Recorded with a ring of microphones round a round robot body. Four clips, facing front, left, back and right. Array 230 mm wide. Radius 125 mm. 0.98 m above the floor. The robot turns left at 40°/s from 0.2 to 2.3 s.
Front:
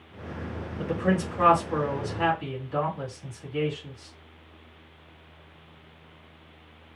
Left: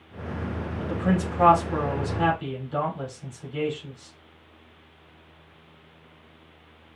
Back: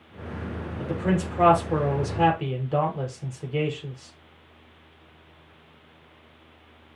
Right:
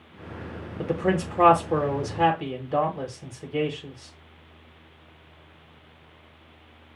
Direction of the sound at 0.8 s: 80° right.